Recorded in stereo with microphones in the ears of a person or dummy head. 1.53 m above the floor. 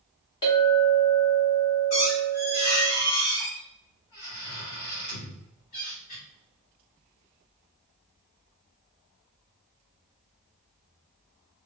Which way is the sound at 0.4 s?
25° left (ahead or behind).